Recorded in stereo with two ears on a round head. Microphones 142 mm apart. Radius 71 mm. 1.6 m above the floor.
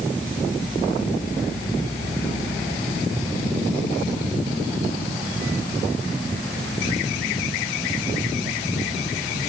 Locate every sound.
Only background noise.